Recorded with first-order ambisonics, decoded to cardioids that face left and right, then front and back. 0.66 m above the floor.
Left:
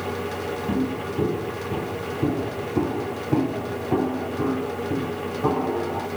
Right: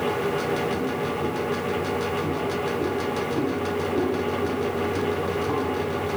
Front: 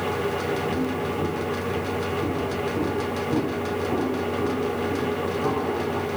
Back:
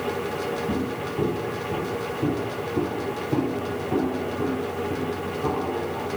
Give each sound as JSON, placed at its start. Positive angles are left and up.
{"t": 0.7, "sound": "footsteps", "azimuth_deg": 115, "distance_m": 7.0}